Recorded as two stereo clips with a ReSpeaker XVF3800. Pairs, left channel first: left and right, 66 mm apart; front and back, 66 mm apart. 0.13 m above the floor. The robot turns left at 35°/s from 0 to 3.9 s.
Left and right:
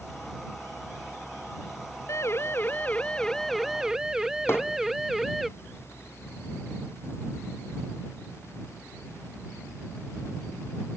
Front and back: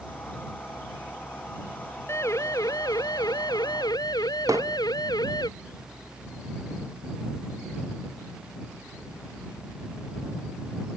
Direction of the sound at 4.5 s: 140° left.